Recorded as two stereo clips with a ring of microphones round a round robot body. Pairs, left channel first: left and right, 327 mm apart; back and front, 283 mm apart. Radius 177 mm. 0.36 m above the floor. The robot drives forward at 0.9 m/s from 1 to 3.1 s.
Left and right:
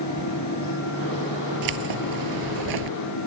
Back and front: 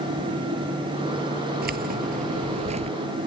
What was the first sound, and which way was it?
Keys jangling, 65° right.